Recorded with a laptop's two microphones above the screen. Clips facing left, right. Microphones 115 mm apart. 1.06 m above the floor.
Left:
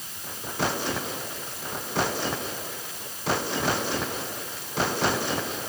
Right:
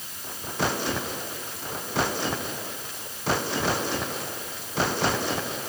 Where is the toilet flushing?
I don't hear a toilet flushing.